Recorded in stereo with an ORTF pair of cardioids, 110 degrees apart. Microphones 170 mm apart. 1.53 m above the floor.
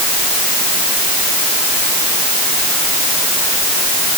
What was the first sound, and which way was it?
Only background noise.